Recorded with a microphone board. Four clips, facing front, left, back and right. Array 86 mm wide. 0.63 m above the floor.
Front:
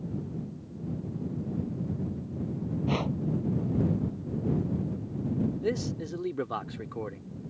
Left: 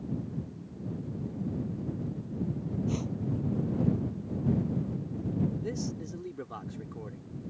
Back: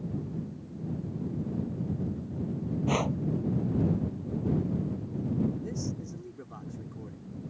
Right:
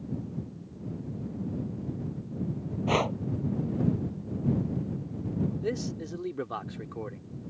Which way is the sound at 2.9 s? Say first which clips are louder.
Right 10 dB, back 2 dB; 105° right.